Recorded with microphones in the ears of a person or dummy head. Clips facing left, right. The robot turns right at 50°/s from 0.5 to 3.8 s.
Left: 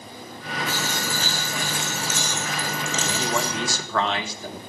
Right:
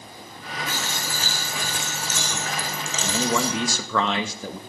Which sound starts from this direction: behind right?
A man speaking, at 3.0 s.